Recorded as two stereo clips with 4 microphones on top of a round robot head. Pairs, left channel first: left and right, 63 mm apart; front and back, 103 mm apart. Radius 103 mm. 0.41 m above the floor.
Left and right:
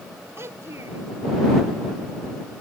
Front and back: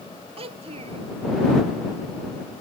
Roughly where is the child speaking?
Behind right.